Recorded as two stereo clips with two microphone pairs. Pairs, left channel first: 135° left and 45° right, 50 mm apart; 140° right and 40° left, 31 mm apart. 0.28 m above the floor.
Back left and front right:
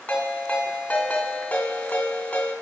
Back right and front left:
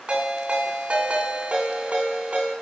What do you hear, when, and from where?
0.1 s a ringtone: 75° left, 1.9 m